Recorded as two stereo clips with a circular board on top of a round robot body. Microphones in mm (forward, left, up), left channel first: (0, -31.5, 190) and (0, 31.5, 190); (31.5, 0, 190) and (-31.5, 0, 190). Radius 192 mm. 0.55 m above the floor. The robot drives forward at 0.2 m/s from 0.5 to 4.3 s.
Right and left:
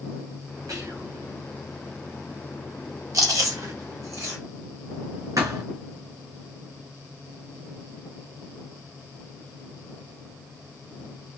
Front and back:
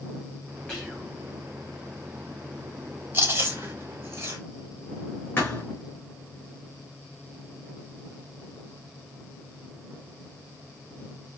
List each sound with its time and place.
0.7 s whispering: 80° left, 2.5 m
3.1 s chewing: 120° left, 1.4 m; by 4.4 s 125° left, 1.5 m
5.4 s a thud: 65° left, 1.7 m